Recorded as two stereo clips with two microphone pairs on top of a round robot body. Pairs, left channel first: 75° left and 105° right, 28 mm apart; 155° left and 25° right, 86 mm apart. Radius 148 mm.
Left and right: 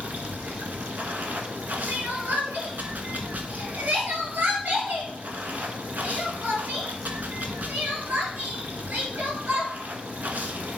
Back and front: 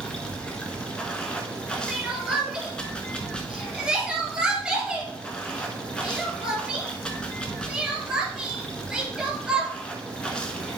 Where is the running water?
125° right, 1.0 m.